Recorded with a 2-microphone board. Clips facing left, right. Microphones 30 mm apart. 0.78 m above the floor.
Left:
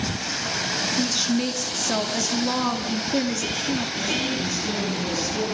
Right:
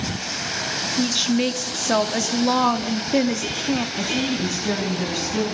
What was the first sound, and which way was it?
A woman speaking, 30° right (ahead or behind).